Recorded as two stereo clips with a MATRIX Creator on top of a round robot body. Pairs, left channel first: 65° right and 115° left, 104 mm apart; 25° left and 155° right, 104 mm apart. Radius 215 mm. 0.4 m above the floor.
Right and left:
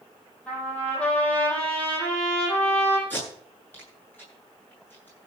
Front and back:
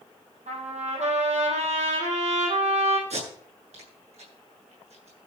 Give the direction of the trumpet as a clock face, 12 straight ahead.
5 o'clock.